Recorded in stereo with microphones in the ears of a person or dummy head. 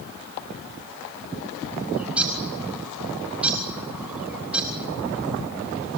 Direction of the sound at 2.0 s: 10° right (ahead or behind).